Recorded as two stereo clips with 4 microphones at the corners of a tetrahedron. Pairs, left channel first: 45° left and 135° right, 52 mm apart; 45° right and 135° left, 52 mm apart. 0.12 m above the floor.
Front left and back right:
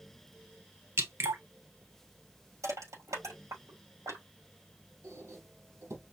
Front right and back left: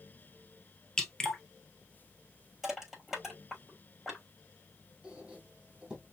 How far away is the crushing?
About 5.5 m.